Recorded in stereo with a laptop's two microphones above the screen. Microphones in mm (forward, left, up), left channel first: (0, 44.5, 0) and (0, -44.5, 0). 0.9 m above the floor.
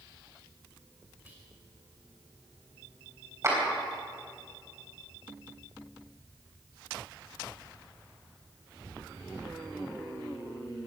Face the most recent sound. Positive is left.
turn(degrees=-35)  # may be behind; listen again after turning